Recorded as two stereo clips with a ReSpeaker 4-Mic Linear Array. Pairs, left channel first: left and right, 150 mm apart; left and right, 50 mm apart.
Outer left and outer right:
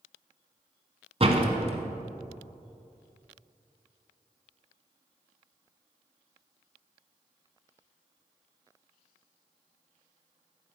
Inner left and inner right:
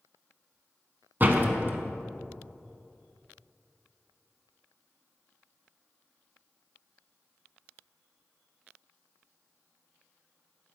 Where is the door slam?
40° right (ahead or behind), 1.0 m.